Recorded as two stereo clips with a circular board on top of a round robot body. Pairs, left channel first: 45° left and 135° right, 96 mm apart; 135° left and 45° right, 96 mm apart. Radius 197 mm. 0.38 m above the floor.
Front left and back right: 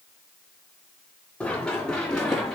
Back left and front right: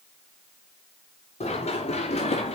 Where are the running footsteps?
125° left, 5 m; by 2.5 s 130° left, 4 m.